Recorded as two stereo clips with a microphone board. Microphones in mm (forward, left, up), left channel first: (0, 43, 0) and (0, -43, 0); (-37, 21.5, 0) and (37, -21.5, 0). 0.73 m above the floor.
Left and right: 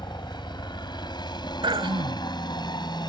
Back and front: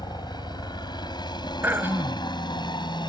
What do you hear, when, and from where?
0.0 s a helicopter: 120° left
1.6 s throat clearing: 95° right